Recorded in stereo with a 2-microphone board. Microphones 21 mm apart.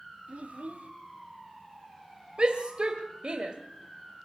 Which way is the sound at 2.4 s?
40° right (ahead or behind).